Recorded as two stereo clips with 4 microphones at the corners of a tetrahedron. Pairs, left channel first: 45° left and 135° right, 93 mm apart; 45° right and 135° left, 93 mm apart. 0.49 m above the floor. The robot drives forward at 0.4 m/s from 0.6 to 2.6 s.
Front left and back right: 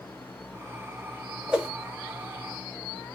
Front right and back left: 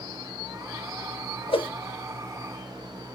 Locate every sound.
1.5 s a whoosh: 55° right, 1.0 m; by 1.7 s 60° right, 0.9 m